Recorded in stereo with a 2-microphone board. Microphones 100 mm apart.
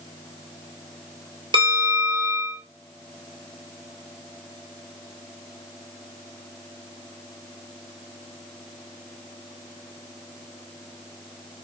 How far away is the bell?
About 1.3 m.